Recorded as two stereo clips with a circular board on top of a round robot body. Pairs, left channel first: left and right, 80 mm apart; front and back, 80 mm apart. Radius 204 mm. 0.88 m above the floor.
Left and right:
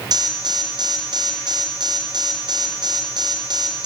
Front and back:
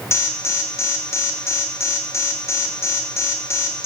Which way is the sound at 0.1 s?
60° right.